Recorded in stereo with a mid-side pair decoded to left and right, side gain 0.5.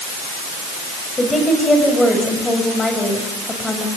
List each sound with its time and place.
1.2 s a woman speaking: 20° left, 7.5 m